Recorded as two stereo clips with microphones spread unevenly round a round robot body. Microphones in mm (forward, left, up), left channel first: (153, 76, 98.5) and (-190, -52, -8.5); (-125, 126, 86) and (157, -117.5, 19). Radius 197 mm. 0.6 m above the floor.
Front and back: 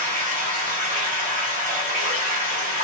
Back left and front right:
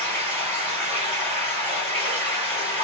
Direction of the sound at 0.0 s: 105° right.